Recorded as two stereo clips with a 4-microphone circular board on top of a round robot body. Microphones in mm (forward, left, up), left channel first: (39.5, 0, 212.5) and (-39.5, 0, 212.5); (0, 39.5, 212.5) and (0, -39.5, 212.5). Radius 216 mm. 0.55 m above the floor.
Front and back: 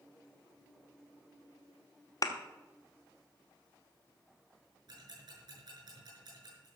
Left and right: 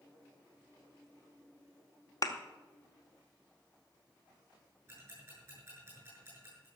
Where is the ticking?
155° right, 7 m.